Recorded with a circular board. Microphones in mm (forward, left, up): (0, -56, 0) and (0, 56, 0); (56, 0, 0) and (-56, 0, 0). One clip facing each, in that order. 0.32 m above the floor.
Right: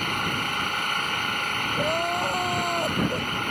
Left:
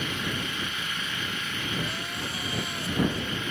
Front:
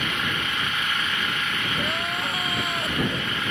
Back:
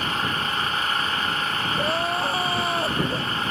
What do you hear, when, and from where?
0.0 s an engine running: 125° right
1.8 s crying: 120° right